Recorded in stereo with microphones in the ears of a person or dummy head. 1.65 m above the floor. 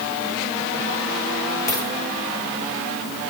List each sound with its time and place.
1.7 s a dropped coin: 20° left (ahead or behind), 8 m